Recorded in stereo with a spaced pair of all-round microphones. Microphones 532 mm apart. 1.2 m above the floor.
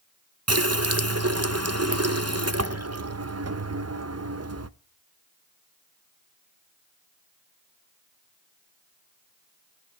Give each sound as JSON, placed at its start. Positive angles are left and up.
{"t": 0.5, "sound": "a running tap", "side_deg": -30, "distance_m": 0.6}